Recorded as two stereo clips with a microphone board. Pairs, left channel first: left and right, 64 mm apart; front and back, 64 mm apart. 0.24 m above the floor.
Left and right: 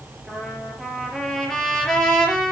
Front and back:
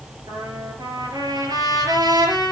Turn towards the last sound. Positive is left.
turn(degrees=175)